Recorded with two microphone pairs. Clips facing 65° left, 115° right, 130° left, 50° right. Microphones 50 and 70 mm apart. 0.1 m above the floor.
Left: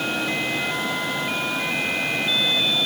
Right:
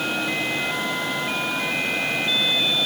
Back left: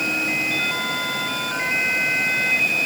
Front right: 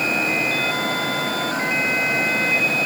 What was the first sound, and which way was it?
Only background noise.